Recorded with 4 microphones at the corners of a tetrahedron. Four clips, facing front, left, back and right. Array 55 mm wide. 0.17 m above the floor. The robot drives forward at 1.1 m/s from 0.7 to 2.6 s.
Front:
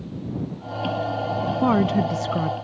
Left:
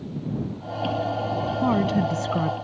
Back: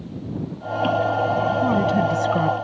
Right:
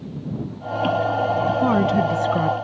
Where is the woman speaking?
15° right; by 2.5 s 150° right.